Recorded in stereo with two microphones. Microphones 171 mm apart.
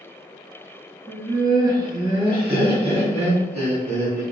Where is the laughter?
15° right (ahead or behind), 2.0 m; by 4.2 s 45° right (ahead or behind), 3 m.